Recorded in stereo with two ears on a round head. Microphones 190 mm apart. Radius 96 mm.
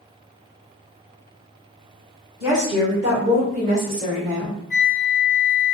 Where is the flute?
20° left (ahead or behind), 0.8 m.